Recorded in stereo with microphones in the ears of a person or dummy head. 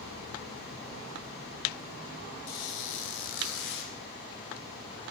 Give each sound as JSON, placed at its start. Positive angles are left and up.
{"t": 2.5, "sound": "a squeak", "side_deg": 65, "distance_m": 2.5}